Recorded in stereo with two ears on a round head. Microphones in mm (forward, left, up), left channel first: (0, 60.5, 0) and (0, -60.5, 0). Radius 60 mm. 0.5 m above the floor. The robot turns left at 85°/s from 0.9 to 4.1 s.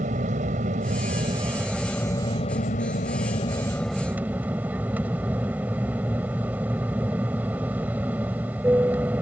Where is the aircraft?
100° right; by 9.2 s 15° right.